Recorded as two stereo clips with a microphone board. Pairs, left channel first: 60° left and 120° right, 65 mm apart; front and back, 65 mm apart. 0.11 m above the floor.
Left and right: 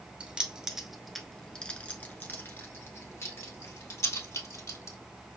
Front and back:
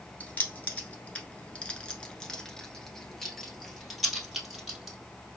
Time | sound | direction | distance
0.2 | keys jangling | 55° right | 1.1 m